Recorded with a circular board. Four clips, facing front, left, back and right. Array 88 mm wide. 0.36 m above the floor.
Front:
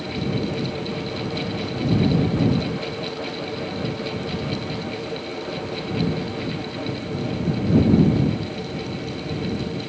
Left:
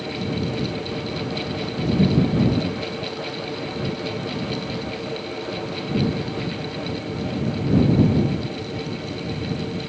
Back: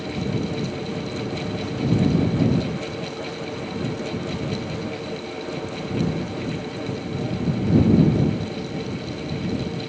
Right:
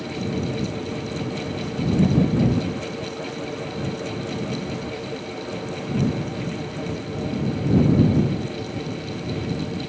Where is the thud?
I don't hear a thud.